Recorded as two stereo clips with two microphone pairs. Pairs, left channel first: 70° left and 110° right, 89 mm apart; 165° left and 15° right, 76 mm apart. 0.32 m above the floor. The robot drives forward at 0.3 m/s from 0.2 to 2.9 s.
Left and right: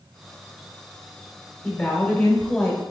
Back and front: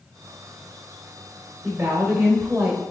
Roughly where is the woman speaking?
Ahead left.